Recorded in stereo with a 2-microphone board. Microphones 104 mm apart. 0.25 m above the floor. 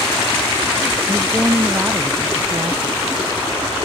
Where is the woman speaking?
30° right (ahead or behind); by 3.1 s 20° right (ahead or behind).